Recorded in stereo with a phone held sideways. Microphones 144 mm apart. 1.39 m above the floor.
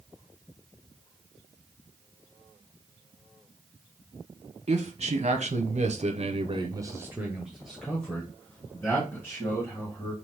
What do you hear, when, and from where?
4.7 s a man speaking: 50° right (ahead or behind), 1.1 m; by 10.1 s 20° left (ahead or behind), 2 m